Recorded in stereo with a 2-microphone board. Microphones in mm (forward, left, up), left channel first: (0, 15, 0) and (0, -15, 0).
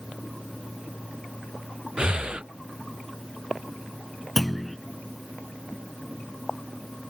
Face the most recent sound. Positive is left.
turn(degrees=5)  # may be behind; listen again after turning